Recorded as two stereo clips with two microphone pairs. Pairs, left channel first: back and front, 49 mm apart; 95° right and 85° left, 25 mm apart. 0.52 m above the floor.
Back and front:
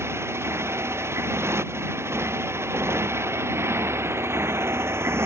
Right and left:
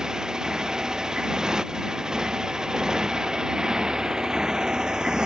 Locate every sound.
0.0 s a motorcycle: 25° left; by 5.2 s 30° left